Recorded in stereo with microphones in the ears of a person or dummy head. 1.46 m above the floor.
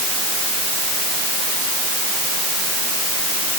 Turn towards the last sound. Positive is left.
No sound to turn to.